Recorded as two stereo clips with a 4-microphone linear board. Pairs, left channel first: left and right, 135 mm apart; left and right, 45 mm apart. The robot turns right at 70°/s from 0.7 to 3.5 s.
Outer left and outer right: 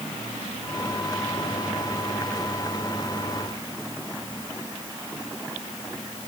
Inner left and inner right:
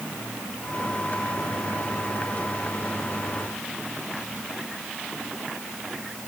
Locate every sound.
Only background noise.